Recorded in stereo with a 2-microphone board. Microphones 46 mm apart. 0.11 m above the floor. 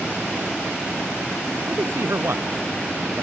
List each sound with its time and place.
1.7 s a man speaking: 65° right (ahead or behind)